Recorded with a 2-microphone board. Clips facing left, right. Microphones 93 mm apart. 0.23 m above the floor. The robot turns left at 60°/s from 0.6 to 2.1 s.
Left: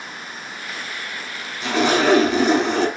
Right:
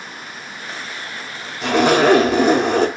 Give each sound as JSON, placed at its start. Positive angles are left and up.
{"t": 1.6, "sound": "a zipper", "side_deg": -70, "distance_m": 0.7}